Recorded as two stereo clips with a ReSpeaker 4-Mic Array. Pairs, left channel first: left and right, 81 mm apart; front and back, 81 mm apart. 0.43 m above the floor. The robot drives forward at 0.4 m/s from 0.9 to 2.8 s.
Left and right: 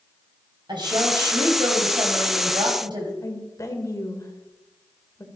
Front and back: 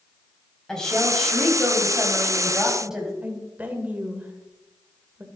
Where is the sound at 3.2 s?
120° left, 1.9 m.